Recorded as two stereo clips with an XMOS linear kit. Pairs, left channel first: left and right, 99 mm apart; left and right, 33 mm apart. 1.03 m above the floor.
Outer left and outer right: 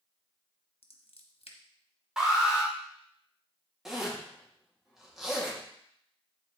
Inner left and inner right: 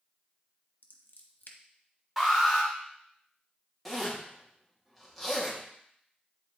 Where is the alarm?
5° right (ahead or behind), 2.0 m.